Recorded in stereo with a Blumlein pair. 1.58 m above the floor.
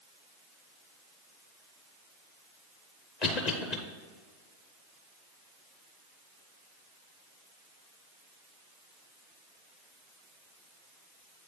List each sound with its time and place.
3.2 s a cough: 40° left, 0.8 m